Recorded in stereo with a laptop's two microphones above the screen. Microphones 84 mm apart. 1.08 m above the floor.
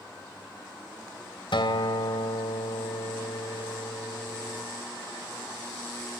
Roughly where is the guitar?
Left.